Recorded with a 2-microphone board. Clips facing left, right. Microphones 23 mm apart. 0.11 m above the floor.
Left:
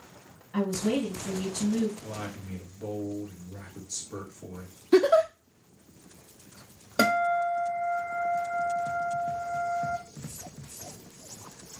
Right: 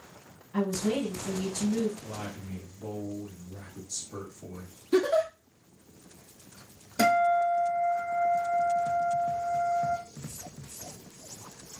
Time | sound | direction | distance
0.5 | a woman speaking | 40° left (ahead or behind) | 2 m
2.0 | a man speaking | 40° left (ahead or behind) | 2 m
4.9 | a giggle | 45° left (ahead or behind) | 0.8 m
7.0 | a guitar | 60° left (ahead or behind) | 2 m